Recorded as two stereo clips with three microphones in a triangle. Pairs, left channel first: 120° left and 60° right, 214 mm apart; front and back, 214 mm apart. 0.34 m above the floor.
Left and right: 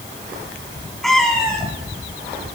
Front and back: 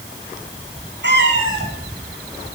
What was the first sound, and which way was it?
A cat meowing, 150° right.